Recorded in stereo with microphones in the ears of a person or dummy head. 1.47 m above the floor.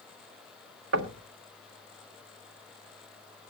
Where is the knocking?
70° right (ahead or behind), 1.0 m.